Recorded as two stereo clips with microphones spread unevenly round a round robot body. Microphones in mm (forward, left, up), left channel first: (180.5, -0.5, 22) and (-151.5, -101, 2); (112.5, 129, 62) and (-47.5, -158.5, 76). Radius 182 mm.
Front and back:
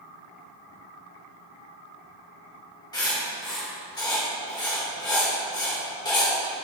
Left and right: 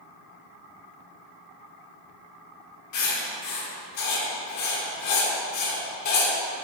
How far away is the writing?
About 3 m.